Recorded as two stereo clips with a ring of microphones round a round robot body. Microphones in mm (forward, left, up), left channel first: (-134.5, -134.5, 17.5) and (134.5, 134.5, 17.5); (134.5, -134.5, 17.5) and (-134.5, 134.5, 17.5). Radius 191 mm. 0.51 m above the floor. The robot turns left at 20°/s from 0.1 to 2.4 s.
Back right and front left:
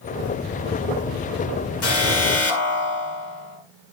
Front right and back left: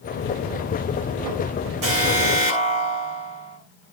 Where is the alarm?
175° left, 7.5 m; by 3.6 s 165° left, 7.5 m.